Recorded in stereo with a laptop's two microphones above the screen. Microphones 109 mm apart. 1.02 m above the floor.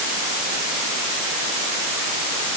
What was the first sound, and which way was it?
Only background noise.